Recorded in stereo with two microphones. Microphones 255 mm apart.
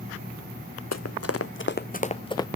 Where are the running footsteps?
80° left, 0.8 m; by 2.5 s 15° left (ahead or behind), 0.9 m.